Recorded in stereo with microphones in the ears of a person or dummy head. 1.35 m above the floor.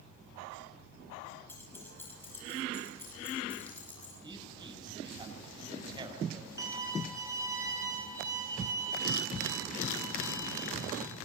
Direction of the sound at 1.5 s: 15° left (ahead or behind).